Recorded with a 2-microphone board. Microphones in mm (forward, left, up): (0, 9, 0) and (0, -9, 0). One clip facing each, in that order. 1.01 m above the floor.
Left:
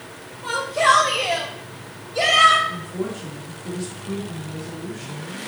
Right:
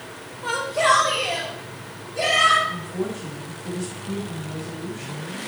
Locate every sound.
0.4 s a shout: 15° right (ahead or behind), 0.9 m; by 2.6 s 55° left (ahead or behind), 1.8 m
2.7 s a woman speaking: 5° left (ahead or behind), 2.5 m